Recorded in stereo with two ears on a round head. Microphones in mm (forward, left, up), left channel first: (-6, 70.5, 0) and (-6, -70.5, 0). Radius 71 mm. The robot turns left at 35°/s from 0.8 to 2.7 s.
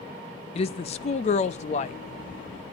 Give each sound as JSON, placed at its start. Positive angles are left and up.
{"t": 0.6, "sound": "a woman speaking", "azimuth_deg": 115, "distance_m": 0.7}